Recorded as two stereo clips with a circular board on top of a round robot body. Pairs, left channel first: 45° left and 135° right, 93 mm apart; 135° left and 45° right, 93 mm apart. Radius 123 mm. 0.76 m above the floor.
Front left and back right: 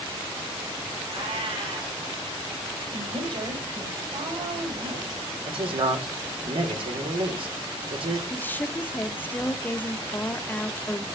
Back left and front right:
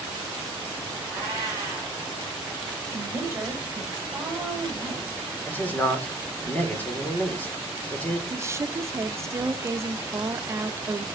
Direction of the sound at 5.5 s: 150° right.